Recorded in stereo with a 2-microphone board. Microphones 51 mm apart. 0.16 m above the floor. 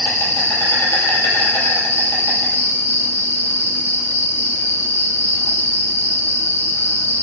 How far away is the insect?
About 3 m.